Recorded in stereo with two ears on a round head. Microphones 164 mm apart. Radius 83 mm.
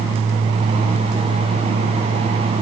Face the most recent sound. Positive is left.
No sound to turn to.